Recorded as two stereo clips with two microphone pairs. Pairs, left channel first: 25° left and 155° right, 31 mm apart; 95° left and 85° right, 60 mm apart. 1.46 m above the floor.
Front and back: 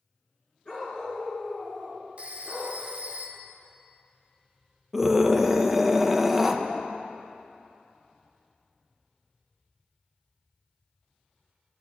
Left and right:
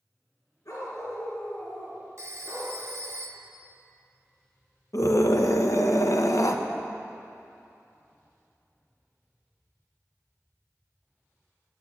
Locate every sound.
0.7 s a dog barking: 75° left, 5 m
2.2 s a phone ringing: 115° right, 1.0 m
4.9 s a scream: 115° left, 1.2 m